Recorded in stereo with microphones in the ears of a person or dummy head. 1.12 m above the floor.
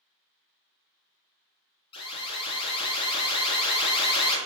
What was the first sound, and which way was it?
An alarm, 25° left (ahead or behind).